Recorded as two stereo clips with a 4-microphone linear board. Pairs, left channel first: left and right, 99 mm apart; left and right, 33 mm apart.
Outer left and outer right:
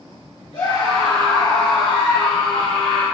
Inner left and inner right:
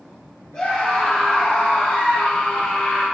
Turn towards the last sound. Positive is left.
turn(degrees=70)  # may be behind; listen again after turning